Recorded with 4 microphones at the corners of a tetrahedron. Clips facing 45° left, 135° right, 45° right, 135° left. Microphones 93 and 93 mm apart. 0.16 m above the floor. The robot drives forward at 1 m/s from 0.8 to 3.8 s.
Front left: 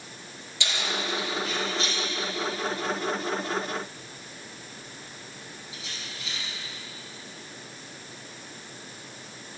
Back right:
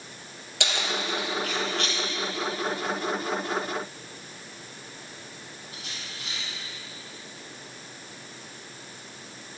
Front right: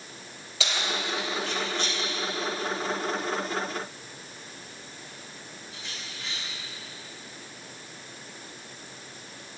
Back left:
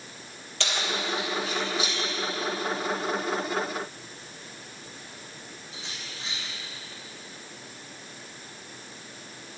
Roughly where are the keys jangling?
Behind right.